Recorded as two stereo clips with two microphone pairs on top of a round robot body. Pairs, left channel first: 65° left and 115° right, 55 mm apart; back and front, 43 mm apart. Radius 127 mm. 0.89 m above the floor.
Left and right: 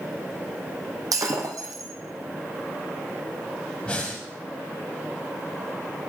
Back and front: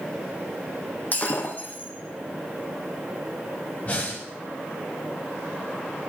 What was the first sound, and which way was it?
Breaking glass, 125° right.